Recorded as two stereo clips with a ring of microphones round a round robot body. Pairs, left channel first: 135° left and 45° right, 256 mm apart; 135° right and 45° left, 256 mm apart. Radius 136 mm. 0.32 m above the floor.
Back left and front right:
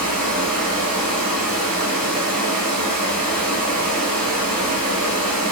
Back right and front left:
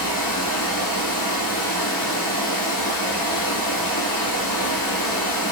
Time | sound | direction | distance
0.0 | running water | 140° right | 1.1 m